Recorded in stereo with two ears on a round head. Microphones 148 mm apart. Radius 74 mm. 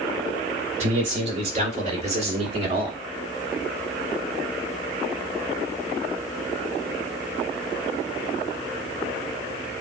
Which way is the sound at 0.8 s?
45° right (ahead or behind).